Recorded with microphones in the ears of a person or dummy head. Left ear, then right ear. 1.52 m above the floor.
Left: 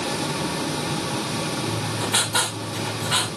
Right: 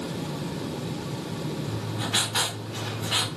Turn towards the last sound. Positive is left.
turn(degrees=30)  # may be behind; listen again after turning